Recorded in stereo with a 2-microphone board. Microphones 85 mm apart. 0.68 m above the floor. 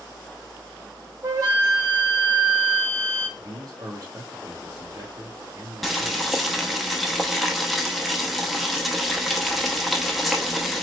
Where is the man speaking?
45° right (ahead or behind), 1.4 m.